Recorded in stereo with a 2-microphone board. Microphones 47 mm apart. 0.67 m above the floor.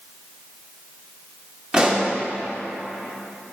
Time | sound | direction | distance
1.7 | a pop | 20° right (ahead or behind) | 1.6 m